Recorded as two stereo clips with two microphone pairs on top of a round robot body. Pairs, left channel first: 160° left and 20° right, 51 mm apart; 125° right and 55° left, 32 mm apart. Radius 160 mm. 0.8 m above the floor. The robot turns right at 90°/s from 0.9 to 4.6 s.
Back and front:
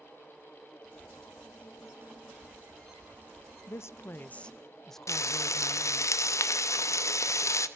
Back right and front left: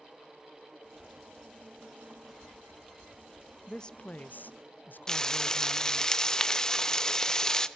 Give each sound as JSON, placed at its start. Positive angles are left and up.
{"t": 3.7, "sound": "a woman speaking", "azimuth_deg": 155, "distance_m": 0.9}
{"t": 5.1, "sound": "frying", "azimuth_deg": 165, "distance_m": 1.0}